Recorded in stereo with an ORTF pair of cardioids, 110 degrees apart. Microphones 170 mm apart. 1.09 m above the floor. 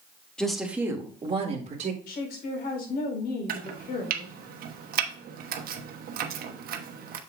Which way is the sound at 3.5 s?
60° right.